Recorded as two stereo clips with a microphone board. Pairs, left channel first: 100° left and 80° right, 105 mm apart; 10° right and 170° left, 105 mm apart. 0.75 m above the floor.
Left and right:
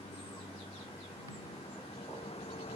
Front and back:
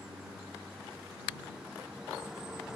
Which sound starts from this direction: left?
A vehicle, at 0.0 s.